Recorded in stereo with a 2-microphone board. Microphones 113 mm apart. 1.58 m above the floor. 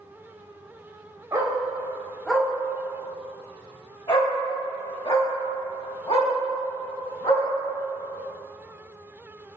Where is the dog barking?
30° right (ahead or behind), 1.3 m; by 7.5 s 65° left (ahead or behind), 4.5 m.